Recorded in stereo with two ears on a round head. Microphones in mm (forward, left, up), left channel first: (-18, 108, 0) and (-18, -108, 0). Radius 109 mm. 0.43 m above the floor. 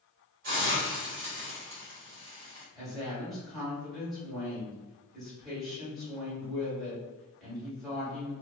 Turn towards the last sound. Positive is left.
turn(degrees=0)  # may be behind; listen again after turning